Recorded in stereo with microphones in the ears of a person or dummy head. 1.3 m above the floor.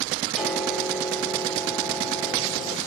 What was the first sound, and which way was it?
A piano, 5° left (ahead or behind).